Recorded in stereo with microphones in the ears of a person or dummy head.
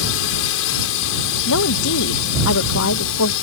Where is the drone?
70° left (ahead or behind).